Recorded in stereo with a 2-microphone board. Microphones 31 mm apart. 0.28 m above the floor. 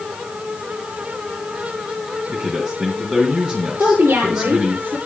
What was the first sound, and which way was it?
A man speaking, 30° right (ahead or behind).